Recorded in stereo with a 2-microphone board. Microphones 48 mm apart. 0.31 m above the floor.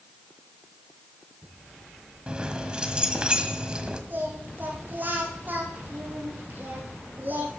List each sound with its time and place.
2.3 s keys jangling: 20° right (ahead or behind), 1.5 m
4.1 s singing: 40° right (ahead or behind), 4 m